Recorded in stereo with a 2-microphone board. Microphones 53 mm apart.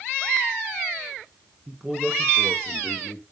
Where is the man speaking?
15° right (ahead or behind), 1.1 m; by 3.2 s 25° left (ahead or behind), 2 m.